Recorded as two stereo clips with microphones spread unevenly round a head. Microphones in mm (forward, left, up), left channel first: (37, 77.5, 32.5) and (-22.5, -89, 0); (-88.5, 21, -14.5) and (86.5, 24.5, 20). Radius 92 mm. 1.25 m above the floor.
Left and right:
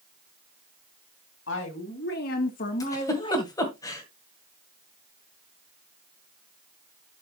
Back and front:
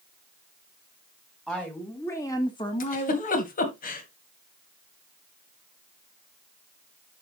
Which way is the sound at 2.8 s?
135° left.